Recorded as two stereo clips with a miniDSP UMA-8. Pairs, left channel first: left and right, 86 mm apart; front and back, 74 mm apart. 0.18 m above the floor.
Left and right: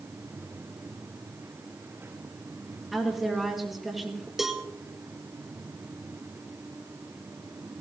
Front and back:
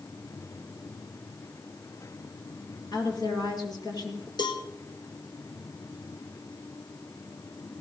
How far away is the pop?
No pop in this recording.